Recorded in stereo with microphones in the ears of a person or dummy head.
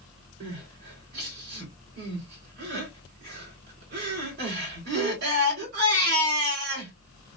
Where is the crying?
55° right (ahead or behind), 3.5 m.